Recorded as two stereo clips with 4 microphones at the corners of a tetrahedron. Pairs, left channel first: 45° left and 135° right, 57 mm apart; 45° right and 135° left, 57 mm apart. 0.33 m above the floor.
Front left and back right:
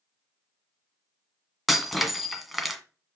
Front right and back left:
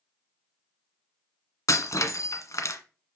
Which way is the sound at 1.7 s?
50° right.